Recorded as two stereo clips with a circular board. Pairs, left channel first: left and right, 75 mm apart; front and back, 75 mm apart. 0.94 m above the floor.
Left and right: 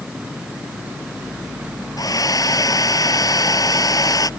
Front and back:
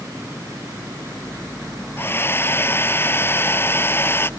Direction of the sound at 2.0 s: 60° left.